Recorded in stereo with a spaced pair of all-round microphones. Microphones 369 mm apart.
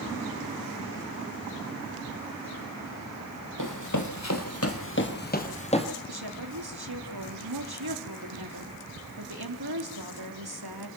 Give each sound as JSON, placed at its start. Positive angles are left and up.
{"t": 3.6, "sound": "running footsteps", "side_deg": 55, "distance_m": 3.0}
{"t": 6.1, "sound": "a woman speaking", "side_deg": -85, "distance_m": 3.5}